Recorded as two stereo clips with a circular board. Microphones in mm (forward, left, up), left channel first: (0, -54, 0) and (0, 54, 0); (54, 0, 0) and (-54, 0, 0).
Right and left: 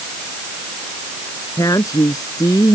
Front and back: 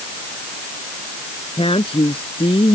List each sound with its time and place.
1.6 s a woman speaking: 35° right